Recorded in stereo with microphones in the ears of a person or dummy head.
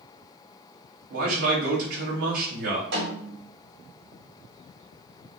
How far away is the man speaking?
About 1.6 m.